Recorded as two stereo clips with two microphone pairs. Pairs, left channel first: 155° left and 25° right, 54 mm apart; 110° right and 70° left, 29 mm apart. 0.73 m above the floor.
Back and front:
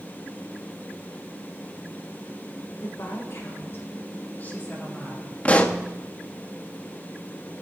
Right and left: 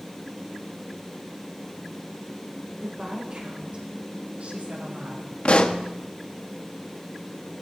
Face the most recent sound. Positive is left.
turn(degrees=-145)